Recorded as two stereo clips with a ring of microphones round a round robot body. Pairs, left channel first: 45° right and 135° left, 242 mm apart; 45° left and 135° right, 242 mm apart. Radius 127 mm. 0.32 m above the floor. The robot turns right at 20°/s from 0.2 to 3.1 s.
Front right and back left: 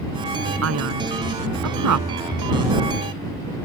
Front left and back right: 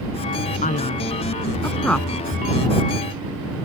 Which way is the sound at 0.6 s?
105° left.